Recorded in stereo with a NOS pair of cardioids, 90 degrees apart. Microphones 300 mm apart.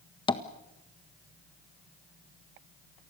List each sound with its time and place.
0.3 s tapping: 15° left, 1.7 m